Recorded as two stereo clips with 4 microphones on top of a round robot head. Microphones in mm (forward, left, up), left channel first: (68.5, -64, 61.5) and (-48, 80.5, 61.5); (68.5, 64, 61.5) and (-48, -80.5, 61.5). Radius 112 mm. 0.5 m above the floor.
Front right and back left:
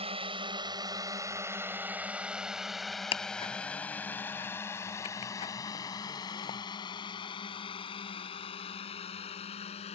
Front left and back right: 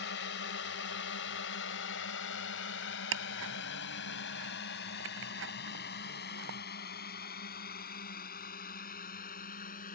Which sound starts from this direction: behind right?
Ticking, at 3.1 s.